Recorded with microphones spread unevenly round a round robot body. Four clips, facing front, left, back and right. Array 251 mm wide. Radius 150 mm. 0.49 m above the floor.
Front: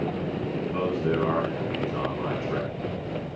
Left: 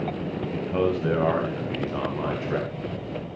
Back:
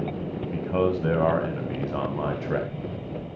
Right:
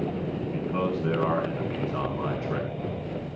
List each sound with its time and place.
0.5 s a man speaking: 165° left, 3 m